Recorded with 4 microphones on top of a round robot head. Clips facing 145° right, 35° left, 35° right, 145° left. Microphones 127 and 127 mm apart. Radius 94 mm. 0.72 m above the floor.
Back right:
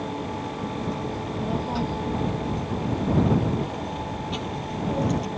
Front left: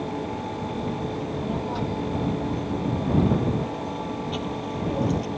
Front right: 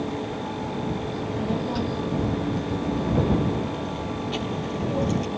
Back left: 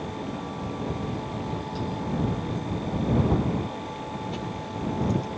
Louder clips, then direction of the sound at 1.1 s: Even, front right 5 dB; 60° right.